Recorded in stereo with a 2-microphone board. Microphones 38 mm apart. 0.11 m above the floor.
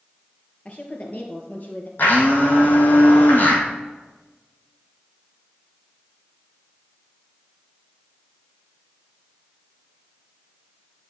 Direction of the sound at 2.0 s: 55° left (ahead or behind).